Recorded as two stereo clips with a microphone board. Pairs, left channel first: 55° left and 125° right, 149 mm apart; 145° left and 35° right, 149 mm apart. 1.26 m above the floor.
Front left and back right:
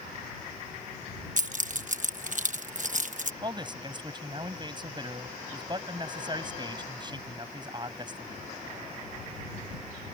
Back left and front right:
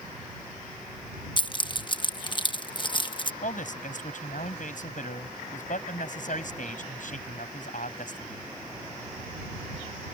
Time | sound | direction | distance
1.4 | keys jangling | 155° right | ?
3.4 | a man speaking | 175° left | ?